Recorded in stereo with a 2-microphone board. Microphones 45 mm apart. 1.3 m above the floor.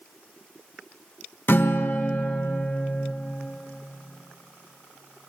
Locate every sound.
1.5 s a guitar: 60° left (ahead or behind), 1.2 m